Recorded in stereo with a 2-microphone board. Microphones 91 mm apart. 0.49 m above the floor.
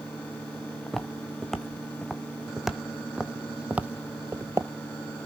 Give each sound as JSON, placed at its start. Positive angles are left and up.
{"t": 0.9, "sound": "footsteps", "side_deg": 5, "distance_m": 2.0}